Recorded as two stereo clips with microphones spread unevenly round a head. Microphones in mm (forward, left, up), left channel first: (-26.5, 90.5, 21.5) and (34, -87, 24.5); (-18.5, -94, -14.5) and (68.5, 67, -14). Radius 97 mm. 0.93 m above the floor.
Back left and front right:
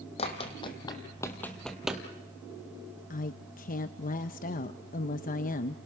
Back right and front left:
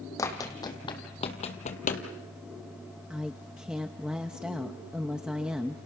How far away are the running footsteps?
About 2.5 m.